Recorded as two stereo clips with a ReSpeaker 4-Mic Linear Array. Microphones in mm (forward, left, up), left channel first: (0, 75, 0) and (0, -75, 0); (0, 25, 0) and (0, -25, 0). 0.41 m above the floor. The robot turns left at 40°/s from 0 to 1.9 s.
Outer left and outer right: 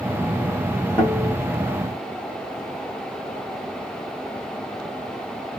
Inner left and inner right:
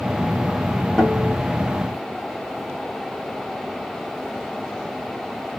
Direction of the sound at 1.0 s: 15° left (ahead or behind).